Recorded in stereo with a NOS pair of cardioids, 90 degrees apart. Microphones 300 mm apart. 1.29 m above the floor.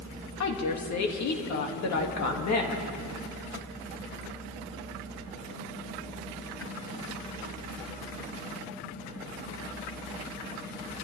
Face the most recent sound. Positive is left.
turn(degrees=60)